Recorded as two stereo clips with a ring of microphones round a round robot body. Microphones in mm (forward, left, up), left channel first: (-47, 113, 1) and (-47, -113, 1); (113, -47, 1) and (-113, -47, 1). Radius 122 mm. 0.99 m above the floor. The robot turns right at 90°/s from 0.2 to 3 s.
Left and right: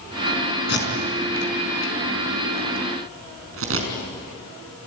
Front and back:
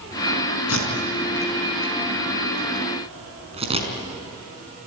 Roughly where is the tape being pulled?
Ahead left.